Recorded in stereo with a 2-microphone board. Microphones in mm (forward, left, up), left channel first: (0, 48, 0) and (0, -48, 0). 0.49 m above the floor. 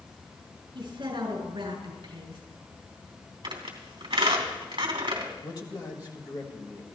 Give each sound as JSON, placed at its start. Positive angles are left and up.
{"t": 0.8, "sound": "a woman speaking", "side_deg": -55, "distance_m": 8.0}
{"t": 3.4, "sound": "a squeak", "side_deg": -60, "distance_m": 3.0}
{"t": 5.4, "sound": "a man speaking", "side_deg": 45, "distance_m": 2.5}